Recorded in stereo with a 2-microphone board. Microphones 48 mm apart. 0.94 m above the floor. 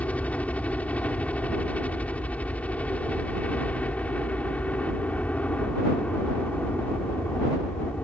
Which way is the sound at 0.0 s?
30° left (ahead or behind).